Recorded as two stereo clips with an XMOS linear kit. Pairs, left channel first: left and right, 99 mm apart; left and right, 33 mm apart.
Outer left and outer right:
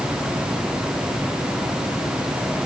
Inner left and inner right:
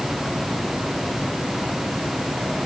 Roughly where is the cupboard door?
I don't hear a cupboard door.